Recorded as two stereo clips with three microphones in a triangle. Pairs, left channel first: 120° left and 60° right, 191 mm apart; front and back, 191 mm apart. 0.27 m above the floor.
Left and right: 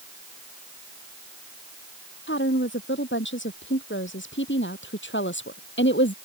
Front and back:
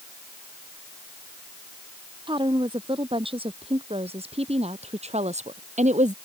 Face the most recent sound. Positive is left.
turn(degrees=130)